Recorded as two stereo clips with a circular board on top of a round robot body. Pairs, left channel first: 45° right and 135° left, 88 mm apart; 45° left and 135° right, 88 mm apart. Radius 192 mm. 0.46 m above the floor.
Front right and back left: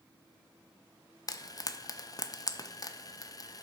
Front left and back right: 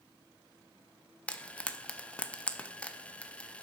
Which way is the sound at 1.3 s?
25° right.